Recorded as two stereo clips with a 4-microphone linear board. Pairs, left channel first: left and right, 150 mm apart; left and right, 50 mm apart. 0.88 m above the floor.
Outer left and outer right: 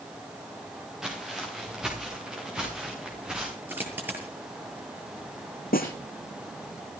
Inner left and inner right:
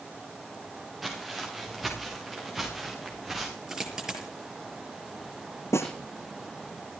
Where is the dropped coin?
10° right (ahead or behind), 7.5 m.